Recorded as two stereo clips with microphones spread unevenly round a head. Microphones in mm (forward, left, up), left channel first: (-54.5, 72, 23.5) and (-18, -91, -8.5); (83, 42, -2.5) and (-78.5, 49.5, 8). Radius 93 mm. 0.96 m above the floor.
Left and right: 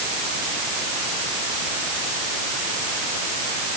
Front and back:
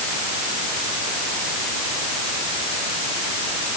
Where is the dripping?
No dripping in this recording.